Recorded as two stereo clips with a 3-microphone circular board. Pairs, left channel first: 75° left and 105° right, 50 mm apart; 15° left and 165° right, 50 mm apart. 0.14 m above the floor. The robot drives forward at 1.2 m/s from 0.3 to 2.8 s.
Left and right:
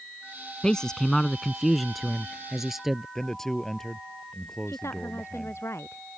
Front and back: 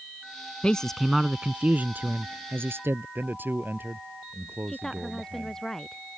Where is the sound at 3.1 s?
155° left.